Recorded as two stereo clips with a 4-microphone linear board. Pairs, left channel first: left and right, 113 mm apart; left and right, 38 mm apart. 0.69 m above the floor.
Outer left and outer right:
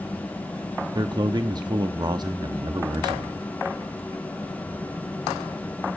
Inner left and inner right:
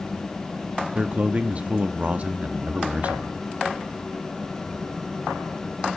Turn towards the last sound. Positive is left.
turn(degrees=-40)  # may be behind; listen again after turning